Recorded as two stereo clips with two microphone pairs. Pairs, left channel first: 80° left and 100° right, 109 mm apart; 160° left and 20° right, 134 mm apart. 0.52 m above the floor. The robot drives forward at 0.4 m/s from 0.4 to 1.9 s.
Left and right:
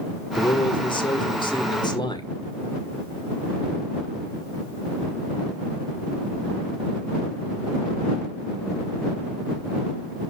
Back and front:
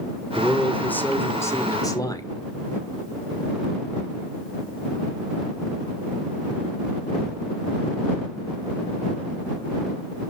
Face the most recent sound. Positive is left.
turn(degrees=105)